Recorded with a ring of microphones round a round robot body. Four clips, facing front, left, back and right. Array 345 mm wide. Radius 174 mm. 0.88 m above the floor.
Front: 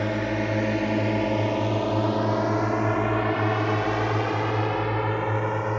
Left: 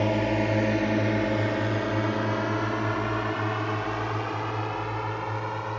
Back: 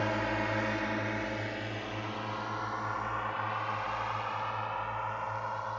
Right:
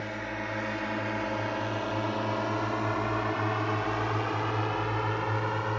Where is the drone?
55° left; by 5.8 s 10° right.